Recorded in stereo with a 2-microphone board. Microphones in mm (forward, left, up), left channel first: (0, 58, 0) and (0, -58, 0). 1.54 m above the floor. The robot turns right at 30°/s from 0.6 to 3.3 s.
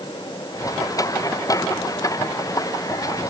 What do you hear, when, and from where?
Only background noise.